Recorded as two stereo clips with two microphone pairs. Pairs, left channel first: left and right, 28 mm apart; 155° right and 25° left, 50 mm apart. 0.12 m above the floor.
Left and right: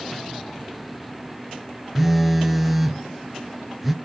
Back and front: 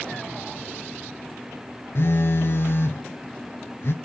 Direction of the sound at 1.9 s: 175° right.